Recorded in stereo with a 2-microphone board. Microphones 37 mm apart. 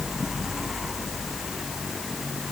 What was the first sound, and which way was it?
Only background noise.